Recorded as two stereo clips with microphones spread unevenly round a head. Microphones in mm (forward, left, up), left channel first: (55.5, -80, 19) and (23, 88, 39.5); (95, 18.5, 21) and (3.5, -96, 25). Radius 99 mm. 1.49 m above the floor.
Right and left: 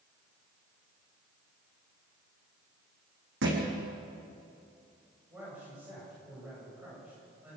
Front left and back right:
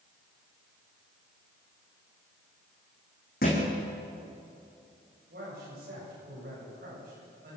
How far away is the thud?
About 5 m.